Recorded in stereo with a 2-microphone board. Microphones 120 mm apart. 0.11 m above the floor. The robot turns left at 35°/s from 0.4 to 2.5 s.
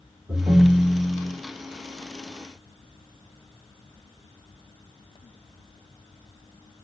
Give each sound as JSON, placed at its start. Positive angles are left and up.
{"t": 0.3, "sound": "a ringtone", "azimuth_deg": -120, "distance_m": 1.6}